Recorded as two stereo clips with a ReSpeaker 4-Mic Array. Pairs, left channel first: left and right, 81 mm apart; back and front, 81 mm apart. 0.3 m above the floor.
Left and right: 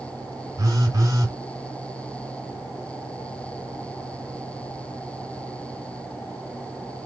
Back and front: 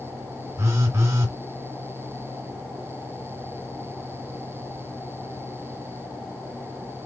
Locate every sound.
0.6 s a phone buzzing: 55° right, 1.9 m